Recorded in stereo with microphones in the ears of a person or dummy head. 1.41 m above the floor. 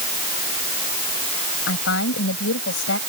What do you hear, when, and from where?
1.7 s a woman speaking: 85° left